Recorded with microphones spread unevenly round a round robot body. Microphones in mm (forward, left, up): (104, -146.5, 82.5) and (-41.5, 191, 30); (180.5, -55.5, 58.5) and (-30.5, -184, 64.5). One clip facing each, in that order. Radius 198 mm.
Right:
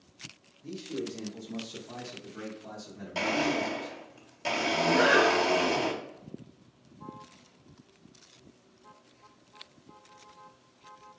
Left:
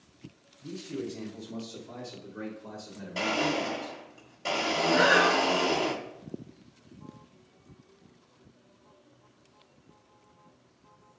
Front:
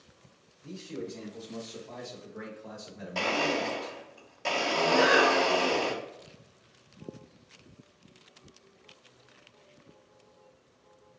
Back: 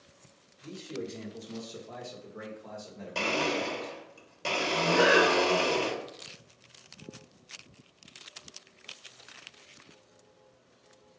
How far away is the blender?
About 1.5 m.